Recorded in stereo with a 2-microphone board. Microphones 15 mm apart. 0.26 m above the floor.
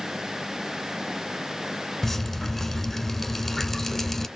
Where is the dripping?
15° left (ahead or behind), 0.8 m.